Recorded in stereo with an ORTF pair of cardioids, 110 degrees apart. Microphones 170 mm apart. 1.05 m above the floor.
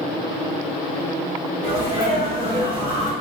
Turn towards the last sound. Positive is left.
turn(degrees=-35)